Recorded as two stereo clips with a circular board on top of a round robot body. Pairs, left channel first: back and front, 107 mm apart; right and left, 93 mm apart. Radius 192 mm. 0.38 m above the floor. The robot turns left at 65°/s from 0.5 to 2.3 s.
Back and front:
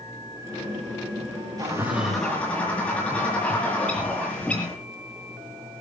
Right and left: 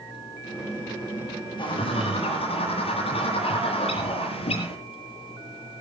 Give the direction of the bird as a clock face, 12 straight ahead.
2 o'clock.